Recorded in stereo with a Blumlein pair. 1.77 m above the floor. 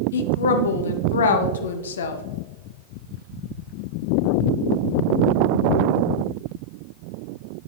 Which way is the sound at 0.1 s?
65° left.